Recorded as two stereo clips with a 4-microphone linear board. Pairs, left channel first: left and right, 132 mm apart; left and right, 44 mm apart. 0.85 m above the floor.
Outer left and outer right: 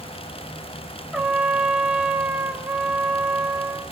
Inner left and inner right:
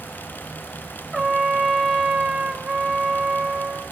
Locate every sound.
1.1 s a trumpet: 5° right (ahead or behind), 0.8 m